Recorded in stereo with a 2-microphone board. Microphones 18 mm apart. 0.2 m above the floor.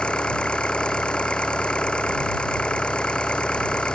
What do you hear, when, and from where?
0.0 s an engine running: 60° left (ahead or behind)